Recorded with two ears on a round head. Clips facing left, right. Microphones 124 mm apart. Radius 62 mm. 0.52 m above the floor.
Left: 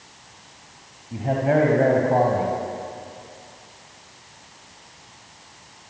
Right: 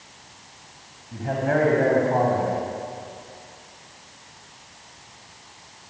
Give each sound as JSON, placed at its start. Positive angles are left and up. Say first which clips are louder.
{"t": 1.1, "sound": "a man speaking", "louder": "left 3 dB", "side_deg": 25, "distance_m": 4.0}